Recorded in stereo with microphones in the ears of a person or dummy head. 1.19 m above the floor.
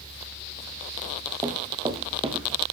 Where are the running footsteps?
20° right (ahead or behind), 2.5 m; by 2.6 s 35° right (ahead or behind), 2.0 m.